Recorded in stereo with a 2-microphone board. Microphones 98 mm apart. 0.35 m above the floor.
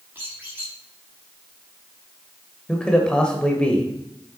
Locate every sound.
0.1 s a squeak: 15° right (ahead or behind), 4.5 m
2.7 s a man speaking: 10° left (ahead or behind), 1.5 m